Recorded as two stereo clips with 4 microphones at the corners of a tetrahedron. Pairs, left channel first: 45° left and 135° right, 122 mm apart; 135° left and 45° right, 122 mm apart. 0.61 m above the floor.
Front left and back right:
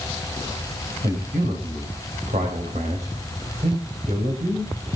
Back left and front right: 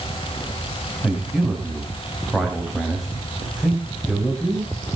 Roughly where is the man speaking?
Behind right.